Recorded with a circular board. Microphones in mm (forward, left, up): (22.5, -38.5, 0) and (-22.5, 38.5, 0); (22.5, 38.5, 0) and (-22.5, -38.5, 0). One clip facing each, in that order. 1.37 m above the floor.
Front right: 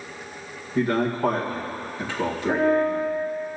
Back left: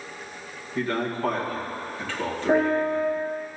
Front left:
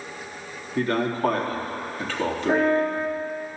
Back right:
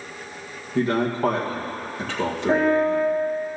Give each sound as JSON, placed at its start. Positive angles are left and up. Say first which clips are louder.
{"t": 0.8, "sound": "a man speaking", "louder": "front right 4 dB, back right 2 dB", "azimuth_deg": -135, "distance_m": 1.9}
{"t": 2.5, "sound": "a piano", "louder": "even, back right 2 dB", "azimuth_deg": -175, "distance_m": 2.5}